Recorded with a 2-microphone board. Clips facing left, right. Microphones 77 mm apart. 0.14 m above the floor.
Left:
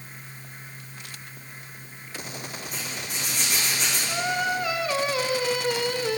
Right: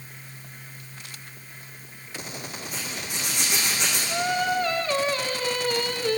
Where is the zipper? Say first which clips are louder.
Right 1 dB; 5° right (ahead or behind), 9.5 m.